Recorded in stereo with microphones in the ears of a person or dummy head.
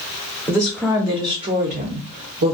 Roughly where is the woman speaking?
Centre.